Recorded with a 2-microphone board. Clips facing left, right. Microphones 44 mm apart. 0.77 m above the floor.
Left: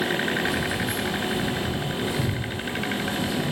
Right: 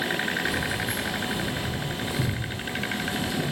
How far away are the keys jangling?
About 1.1 m.